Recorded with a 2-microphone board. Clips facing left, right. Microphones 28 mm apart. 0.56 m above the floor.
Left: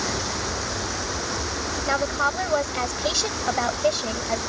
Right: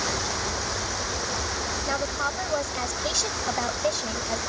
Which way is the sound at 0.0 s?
70° left (ahead or behind).